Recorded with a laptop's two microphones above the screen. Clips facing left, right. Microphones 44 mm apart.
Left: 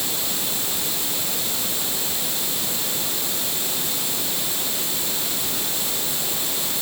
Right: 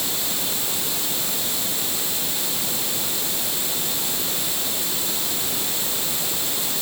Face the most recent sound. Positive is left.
No sound to turn to.